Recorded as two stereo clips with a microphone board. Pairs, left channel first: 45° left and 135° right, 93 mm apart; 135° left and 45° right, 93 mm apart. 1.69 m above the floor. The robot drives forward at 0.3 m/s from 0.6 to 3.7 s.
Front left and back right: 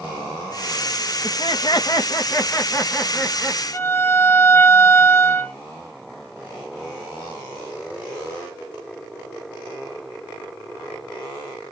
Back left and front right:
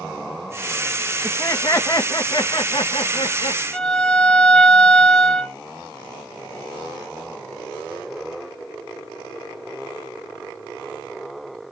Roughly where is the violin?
Ahead left.